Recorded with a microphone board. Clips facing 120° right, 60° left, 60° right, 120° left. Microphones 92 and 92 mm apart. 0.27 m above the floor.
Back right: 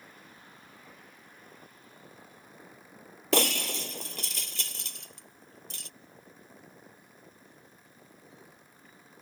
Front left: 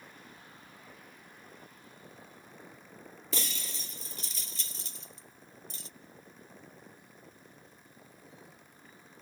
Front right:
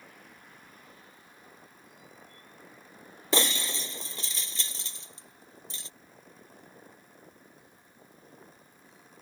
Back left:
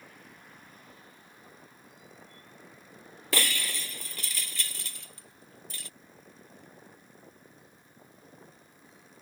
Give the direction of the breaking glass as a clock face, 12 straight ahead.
4 o'clock.